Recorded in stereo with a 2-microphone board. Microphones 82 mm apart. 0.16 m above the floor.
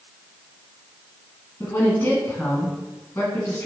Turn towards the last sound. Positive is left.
turn(degrees=30)  # may be behind; listen again after turning